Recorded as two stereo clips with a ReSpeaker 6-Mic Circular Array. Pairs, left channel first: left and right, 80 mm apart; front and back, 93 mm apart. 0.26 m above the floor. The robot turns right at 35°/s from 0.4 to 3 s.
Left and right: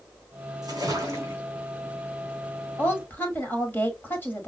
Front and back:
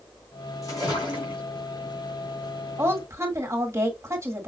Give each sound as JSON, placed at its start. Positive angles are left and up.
{"t": 0.6, "sound": "a splash", "azimuth_deg": -55, "distance_m": 3.0}
{"t": 2.8, "sound": "a woman speaking", "azimuth_deg": 135, "distance_m": 1.8}